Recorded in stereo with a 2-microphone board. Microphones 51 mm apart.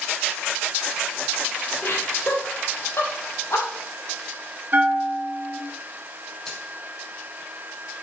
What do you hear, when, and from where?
1.8 s laughter: 50° left (ahead or behind), 3 m; by 3.7 s 75° left (ahead or behind), 4.5 m
4.7 s a bell: 45° right (ahead or behind), 1.9 m
6.5 s a finger snap: 10° left (ahead or behind), 5.5 m